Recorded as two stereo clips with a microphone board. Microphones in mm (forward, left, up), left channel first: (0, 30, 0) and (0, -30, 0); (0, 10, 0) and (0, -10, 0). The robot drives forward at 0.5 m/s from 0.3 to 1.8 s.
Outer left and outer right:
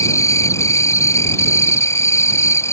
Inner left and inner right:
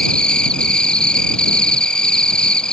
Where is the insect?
55° left (ahead or behind); by 2.7 s 50° left (ahead or behind).